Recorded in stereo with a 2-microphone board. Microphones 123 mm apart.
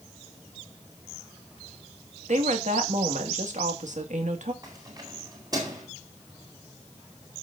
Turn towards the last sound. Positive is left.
turn(degrees=-35)  # may be behind; listen again after turning